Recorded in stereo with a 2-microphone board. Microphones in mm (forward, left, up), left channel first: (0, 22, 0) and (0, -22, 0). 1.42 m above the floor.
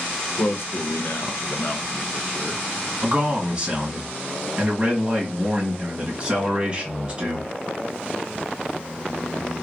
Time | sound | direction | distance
0.4 | a man speaking | 65° left (ahead or behind) | 0.9 m
3.0 | a man speaking | 30° right (ahead or behind) | 1.5 m